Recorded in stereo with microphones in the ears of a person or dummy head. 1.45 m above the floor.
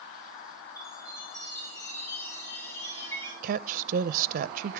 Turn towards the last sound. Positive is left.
turn(degrees=-50)  # may be behind; listen again after turning